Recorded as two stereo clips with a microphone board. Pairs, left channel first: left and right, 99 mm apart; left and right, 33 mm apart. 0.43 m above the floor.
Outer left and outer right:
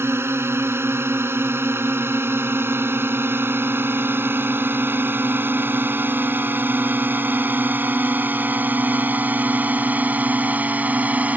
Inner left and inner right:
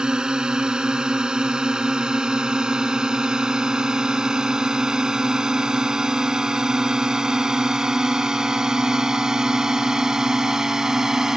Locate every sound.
0.0 s a drone: 25° right (ahead or behind); by 11.4 s 15° right (ahead or behind)